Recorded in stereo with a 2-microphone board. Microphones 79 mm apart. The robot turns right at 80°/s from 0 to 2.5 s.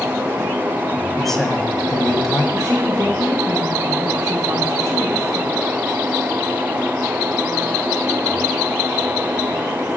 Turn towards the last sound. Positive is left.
turn(degrees=-30)  # may be behind; listen again after turning